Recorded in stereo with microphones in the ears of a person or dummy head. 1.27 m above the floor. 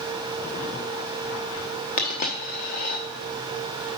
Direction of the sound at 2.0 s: 35° left (ahead or behind).